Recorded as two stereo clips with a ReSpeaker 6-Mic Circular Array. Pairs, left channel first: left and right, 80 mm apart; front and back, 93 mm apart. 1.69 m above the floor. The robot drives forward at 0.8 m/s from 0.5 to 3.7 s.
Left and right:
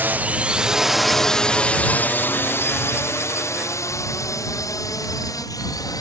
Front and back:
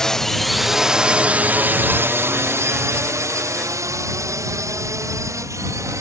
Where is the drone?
75° right; by 6.0 s 125° left.